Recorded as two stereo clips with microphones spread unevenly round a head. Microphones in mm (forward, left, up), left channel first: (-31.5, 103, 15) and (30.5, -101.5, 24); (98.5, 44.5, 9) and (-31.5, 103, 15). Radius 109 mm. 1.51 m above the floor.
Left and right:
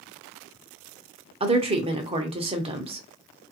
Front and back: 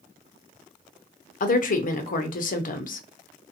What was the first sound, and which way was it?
A woman speaking, 15° right.